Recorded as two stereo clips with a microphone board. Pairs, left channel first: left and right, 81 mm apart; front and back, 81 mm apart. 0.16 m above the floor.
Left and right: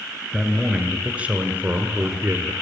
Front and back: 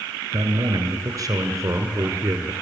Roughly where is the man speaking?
Behind.